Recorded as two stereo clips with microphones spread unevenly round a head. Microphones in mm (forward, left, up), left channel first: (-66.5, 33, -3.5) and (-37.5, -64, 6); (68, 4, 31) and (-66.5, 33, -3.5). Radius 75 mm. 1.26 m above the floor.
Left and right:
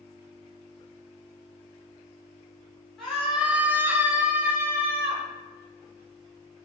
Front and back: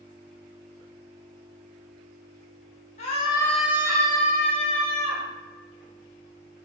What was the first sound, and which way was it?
A scream, 25° left.